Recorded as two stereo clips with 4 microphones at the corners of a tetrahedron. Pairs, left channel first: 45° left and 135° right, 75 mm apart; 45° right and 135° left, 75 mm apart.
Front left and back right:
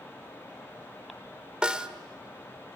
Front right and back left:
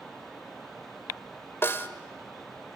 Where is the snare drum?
65° right, 1.4 m.